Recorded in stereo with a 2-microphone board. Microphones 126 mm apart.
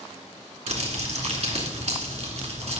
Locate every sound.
0.7 s crumpling: 55° right (ahead or behind), 2.5 m